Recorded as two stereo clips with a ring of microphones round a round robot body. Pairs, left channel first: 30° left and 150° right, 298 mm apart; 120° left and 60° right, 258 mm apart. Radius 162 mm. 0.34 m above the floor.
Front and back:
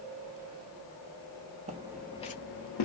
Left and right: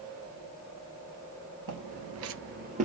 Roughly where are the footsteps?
Right.